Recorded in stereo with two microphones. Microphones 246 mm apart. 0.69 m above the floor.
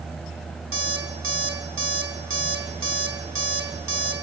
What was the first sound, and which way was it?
An alarm clock, 55° right (ahead or behind).